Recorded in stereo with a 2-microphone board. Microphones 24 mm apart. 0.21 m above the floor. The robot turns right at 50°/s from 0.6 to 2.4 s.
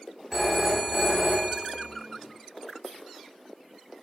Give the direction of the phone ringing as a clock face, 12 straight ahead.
5 o'clock.